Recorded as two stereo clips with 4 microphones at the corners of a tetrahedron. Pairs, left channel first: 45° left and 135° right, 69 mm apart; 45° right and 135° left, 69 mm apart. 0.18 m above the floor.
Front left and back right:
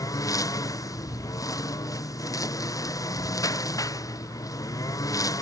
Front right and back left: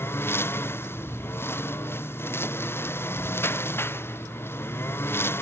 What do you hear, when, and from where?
0.0 s a lawn mower: 10° left